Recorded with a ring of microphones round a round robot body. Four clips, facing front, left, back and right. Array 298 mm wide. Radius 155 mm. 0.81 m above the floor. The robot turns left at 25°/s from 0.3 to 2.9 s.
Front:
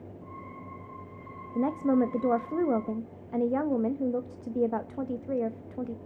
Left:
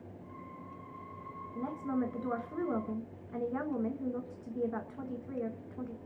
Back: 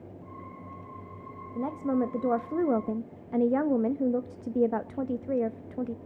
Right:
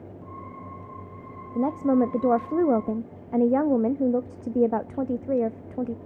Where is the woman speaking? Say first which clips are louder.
Right 13 dB, front 3 dB; 70° right, 0.6 m; by 6.0 s 105° right, 0.6 m.